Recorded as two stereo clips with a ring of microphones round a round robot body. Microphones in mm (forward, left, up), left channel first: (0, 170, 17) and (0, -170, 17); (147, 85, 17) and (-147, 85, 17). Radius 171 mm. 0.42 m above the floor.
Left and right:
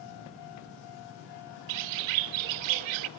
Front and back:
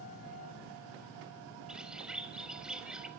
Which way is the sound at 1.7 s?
90° right.